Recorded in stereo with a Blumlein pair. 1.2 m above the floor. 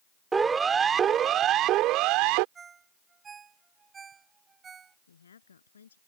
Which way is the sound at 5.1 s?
70° left.